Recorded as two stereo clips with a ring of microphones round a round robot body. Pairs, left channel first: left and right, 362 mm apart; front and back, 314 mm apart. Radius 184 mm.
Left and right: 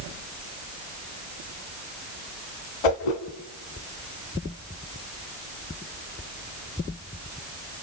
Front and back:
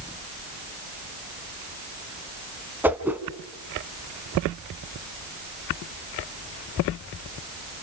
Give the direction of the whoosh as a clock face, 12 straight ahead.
9 o'clock.